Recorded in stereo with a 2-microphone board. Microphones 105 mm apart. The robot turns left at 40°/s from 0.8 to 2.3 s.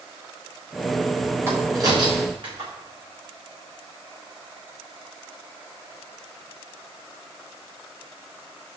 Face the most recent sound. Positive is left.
turn(degrees=-55)  # may be behind; listen again after turning